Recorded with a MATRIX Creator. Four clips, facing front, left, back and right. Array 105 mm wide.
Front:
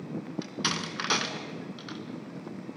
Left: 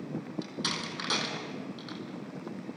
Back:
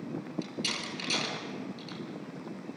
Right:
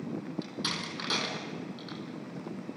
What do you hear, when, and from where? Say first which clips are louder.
0.4 s a door slam: left 1 dB, front 4 dB; 5° left, 2.5 m